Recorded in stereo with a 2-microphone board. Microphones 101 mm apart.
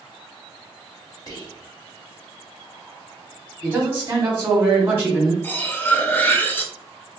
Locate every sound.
1.3 s whispering: 35° left (ahead or behind), 1.1 m
3.6 s a man speaking: 25° right (ahead or behind), 1.3 m
5.4 s cutlery clinking: 20° left (ahead or behind), 0.6 m